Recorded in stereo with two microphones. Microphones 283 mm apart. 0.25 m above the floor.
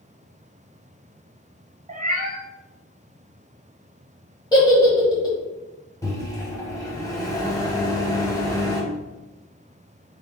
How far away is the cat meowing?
About 0.8 m.